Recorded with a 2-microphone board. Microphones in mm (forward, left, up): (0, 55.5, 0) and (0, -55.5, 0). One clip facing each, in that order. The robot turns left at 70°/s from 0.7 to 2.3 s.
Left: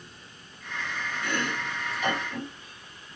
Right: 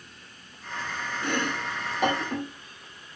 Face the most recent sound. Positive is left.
turn(degrees=-60)  # may be behind; listen again after turning